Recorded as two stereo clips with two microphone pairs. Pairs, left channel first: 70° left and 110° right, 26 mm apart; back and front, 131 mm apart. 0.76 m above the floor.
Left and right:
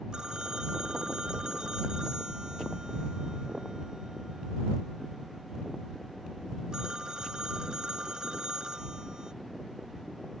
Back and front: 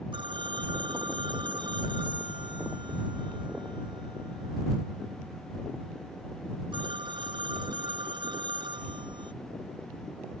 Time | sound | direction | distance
0.1 | a phone ringing | 50° right | ?